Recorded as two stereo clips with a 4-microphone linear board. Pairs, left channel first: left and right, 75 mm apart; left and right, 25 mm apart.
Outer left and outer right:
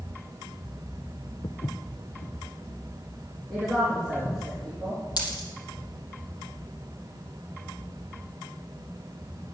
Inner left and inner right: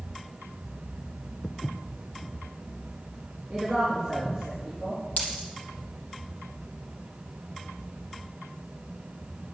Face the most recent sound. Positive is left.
turn(degrees=60)  # may be behind; listen again after turning